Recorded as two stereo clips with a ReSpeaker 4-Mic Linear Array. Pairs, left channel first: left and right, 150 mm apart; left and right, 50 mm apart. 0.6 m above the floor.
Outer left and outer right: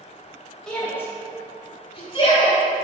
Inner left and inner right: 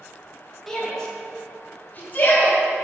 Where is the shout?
5° left (ahead or behind), 2.5 m; by 2.6 s 40° left (ahead or behind), 4.5 m.